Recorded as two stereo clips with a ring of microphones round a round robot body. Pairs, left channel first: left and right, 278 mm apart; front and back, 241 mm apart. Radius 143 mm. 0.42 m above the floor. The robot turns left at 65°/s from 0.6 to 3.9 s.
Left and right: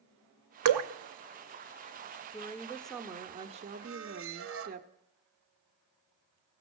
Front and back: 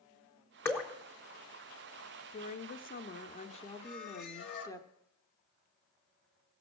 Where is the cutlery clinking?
I don't hear cutlery clinking.